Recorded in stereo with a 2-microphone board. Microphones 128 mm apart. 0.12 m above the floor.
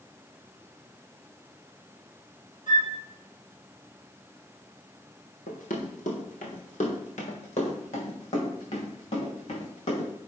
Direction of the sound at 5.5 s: 80° left.